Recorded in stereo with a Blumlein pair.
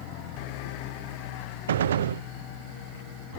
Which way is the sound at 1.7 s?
65° right.